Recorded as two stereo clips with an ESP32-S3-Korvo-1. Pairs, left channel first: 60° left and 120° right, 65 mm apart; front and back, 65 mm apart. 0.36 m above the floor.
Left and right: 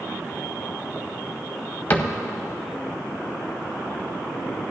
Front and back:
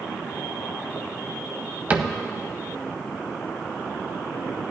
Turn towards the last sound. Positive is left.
turn(degrees=115)